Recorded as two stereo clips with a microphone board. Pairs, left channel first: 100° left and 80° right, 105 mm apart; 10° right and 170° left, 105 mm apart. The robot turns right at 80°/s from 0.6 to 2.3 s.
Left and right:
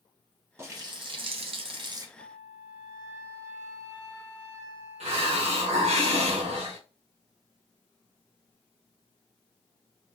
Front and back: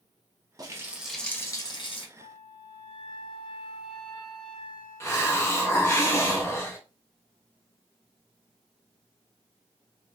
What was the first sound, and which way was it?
A running tap, 140° right.